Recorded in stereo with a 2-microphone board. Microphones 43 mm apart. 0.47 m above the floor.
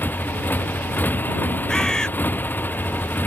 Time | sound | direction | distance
0.0 | a motorcycle | 45° left (ahead or behind) | ?
1.7 | a bird | 15° left (ahead or behind) | ?